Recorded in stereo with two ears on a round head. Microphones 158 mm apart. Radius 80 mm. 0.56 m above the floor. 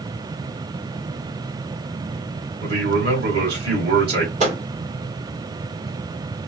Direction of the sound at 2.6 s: 55° right (ahead or behind).